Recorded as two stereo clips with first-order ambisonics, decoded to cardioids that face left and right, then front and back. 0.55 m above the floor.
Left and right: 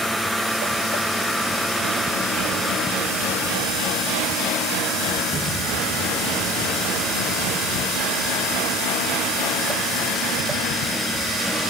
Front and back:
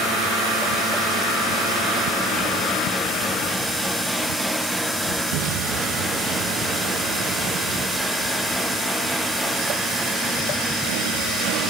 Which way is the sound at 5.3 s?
175° right.